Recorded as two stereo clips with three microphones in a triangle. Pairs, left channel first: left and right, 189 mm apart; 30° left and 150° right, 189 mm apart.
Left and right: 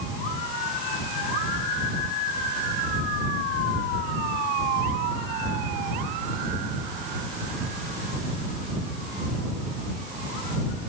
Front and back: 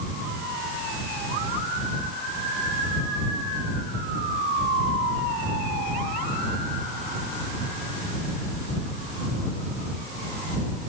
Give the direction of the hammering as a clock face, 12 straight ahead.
No hammering in this recording.